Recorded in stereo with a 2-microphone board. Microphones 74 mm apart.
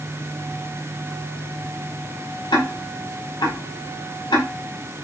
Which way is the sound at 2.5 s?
90° left.